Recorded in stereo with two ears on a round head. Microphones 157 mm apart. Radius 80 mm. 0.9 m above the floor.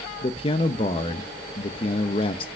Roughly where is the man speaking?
Left.